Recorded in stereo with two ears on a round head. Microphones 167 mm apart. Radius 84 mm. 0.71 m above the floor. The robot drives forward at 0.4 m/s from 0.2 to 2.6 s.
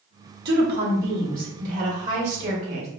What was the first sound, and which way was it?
A woman speaking, 55° right (ahead or behind).